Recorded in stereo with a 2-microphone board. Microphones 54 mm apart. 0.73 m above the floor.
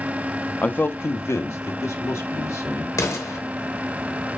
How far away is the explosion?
About 2.5 m.